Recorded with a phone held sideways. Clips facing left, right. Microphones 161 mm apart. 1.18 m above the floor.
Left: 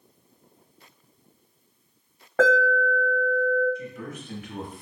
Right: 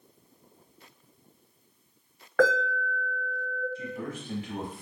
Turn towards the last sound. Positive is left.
turn(degrees=-30)  # may be behind; listen again after turning